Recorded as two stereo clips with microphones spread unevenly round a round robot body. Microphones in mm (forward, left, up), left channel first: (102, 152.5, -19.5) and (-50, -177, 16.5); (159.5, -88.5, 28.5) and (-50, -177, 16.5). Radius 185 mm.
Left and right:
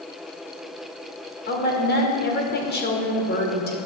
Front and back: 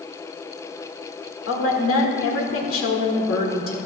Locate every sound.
1.5 s a woman speaking: straight ahead, 2.5 m